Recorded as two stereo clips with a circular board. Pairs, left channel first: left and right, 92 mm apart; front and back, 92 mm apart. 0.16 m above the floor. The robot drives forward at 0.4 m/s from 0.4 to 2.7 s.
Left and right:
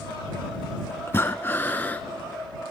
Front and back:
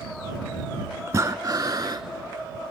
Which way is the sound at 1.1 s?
140° left.